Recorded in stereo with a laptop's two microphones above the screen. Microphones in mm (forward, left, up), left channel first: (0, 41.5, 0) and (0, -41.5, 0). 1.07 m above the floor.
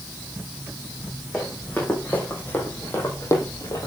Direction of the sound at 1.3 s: 10° left (ahead or behind).